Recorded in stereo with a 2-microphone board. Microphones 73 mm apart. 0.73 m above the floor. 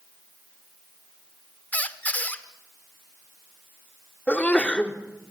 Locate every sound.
1.7 s a squeak: 20° left (ahead or behind), 1.1 m
4.3 s a sneeze: 20° left (ahead or behind), 2.5 m